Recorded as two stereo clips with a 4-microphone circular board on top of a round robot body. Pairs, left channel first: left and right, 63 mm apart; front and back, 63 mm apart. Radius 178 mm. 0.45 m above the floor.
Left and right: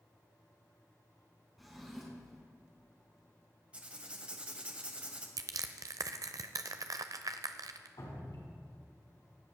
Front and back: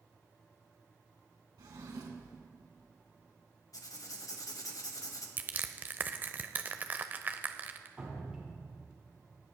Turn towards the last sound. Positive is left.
turn(degrees=105)